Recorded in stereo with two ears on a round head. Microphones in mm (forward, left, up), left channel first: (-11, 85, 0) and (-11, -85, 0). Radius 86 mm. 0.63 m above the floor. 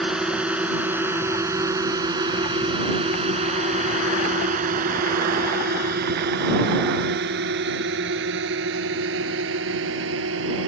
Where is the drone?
5° right (ahead or behind); by 10.7 s 80° right.